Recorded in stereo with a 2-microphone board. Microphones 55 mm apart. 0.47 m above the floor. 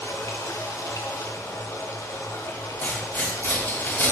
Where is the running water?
65° left (ahead or behind), 1.3 m.